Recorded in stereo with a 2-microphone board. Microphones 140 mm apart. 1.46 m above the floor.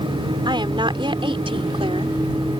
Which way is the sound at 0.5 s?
35° right (ahead or behind).